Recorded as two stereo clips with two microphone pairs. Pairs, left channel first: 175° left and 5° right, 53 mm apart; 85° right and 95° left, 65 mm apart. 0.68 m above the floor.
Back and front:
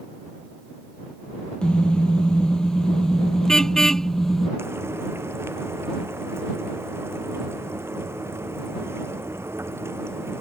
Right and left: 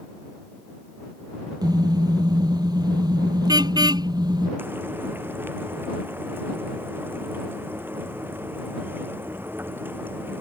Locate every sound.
1.6 s a car horn: 105° left; by 4.5 s 95° left
4.6 s frying: 35° left